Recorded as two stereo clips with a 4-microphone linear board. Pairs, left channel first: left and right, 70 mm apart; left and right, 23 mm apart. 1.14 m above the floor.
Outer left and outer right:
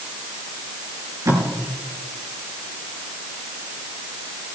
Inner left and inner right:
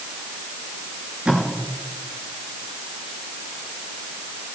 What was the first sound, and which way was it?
Tape being pulled, 60° right (ahead or behind).